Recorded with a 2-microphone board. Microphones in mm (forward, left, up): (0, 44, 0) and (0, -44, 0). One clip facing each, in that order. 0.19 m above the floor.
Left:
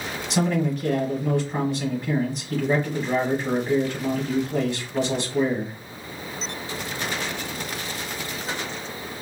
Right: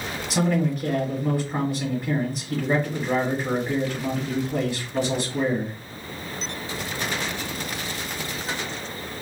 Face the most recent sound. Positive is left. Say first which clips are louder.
# even
turn(degrees=-5)  # may be behind; listen again after turning